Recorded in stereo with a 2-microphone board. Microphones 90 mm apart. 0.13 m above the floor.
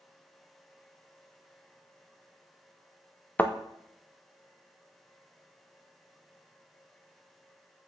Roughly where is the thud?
Centre.